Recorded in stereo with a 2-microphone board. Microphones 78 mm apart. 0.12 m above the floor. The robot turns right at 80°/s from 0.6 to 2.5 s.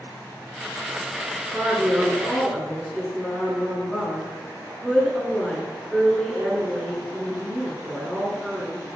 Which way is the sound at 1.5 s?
15° right (ahead or behind).